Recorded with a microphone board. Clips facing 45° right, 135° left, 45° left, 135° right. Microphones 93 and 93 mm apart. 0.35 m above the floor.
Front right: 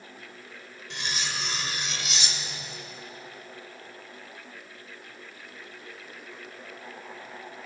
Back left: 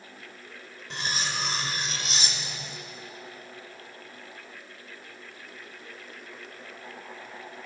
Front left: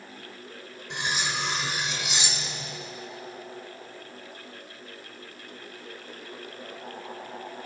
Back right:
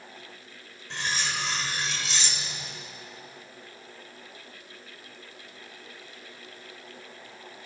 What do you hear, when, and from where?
0.9 s cutlery clinking: 110° left, 0.6 m